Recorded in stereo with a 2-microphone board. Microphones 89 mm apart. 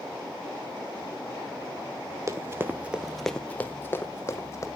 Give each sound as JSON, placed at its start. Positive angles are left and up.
{"t": 2.3, "sound": "running footsteps", "side_deg": -35, "distance_m": 1.6}